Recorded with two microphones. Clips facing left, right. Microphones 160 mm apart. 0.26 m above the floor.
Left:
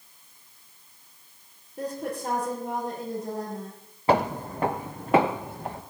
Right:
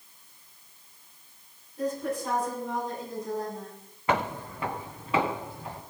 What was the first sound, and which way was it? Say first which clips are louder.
A woman speaking: right 2 dB; 65° left (ahead or behind).